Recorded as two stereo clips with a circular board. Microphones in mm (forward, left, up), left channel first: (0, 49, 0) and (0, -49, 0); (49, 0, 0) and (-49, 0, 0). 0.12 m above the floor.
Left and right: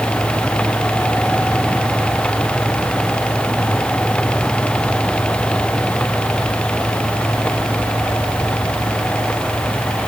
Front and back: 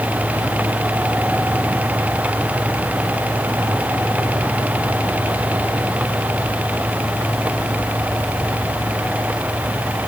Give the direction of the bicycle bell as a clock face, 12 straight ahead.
No bicycle bell in this recording.